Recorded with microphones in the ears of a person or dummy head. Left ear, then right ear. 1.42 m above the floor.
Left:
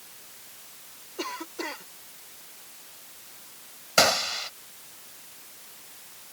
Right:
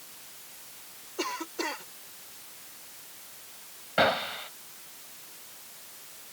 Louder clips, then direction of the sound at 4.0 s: Left 3 dB; 90° left.